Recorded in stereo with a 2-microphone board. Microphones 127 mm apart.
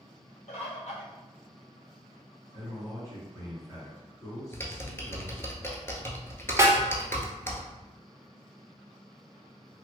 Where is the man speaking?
25° left (ahead or behind), 1.7 m.